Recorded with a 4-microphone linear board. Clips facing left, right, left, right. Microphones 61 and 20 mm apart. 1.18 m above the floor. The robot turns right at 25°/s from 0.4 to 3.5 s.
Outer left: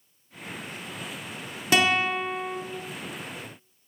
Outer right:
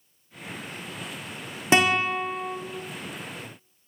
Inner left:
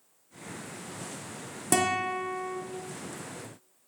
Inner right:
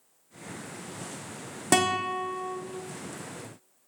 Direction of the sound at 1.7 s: 25° right (ahead or behind).